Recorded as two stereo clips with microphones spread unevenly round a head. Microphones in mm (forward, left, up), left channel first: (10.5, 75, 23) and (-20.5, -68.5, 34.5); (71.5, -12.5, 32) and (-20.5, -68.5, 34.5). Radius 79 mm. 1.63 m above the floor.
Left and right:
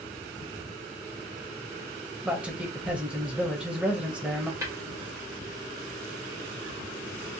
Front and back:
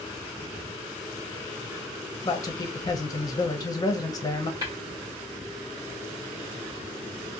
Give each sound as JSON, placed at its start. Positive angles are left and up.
{"t": 2.2, "sound": "a man speaking", "azimuth_deg": -20, "distance_m": 0.6}
{"t": 4.6, "sound": "tapping", "azimuth_deg": -145, "distance_m": 1.0}